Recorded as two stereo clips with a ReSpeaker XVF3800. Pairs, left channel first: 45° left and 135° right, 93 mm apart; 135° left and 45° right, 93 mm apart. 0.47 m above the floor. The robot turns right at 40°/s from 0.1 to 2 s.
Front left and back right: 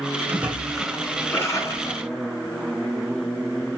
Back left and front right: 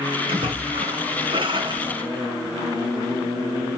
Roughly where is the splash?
Ahead right.